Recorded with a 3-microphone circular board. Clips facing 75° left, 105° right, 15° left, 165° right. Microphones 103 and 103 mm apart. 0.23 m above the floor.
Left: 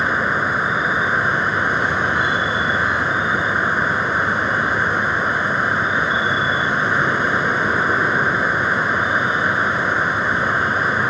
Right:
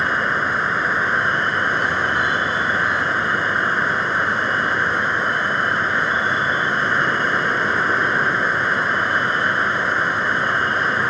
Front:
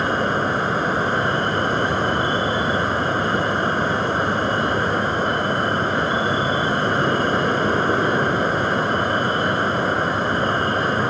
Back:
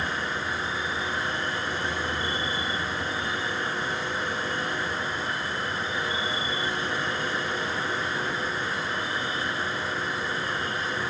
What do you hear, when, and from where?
0.0 s an insect: 10° right